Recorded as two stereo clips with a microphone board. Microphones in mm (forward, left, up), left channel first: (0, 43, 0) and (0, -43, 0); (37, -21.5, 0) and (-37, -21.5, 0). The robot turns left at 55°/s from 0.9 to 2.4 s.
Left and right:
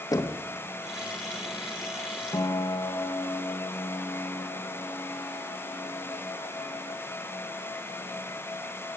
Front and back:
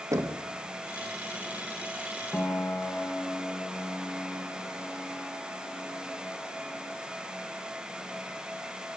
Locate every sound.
0.1 s knocking: 135° left, 1.7 m
2.3 s a piano: 60° left, 2 m